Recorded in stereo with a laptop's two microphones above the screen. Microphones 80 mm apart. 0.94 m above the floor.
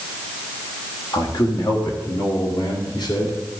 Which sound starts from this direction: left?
A man speaking, at 1.1 s.